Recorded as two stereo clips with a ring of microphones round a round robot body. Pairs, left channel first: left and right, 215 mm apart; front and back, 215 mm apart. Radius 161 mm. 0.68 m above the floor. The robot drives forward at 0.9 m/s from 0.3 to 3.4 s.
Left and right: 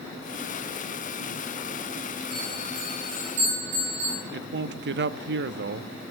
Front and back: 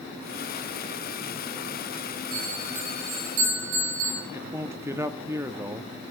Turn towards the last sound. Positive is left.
turn(degrees=-105)